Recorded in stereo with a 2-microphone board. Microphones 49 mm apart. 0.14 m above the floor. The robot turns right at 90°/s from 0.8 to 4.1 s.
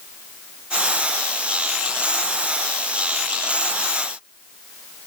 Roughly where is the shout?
No shout in this recording.